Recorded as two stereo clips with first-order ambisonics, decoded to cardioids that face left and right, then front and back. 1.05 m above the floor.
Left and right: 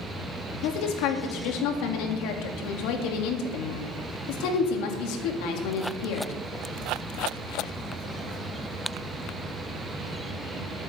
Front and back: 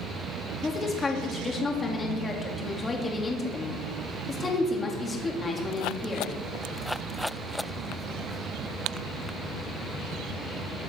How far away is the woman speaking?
About 1.9 m.